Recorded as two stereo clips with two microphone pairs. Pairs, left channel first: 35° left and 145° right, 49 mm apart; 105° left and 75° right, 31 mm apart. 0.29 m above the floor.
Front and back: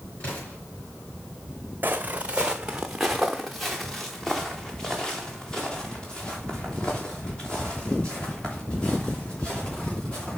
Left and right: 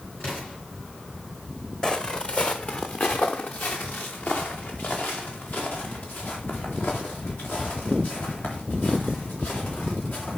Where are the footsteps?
165° left, 0.8 m; by 10.4 s 105° left, 5 m.